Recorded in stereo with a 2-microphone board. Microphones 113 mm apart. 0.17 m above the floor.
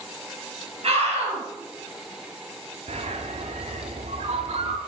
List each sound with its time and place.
0.8 s a scream: 55° right (ahead or behind), 2.5 m
2.9 s a bird: 75° right (ahead or behind), 0.7 m